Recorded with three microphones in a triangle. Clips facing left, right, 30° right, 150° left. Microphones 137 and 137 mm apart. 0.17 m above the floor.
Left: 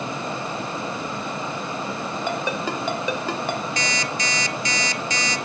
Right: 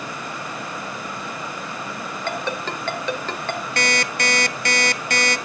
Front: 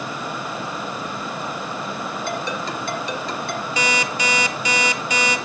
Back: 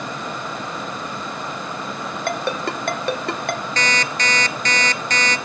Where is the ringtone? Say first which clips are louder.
Even, back 5 dB; 170° left, 2.5 m.